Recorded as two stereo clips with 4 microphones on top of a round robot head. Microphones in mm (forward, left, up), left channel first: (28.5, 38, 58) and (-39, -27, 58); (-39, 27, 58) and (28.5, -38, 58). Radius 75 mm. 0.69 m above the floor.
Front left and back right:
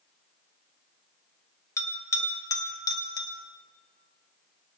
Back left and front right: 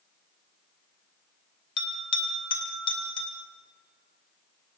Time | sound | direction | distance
1.8 | a bell | 100° left | 3 m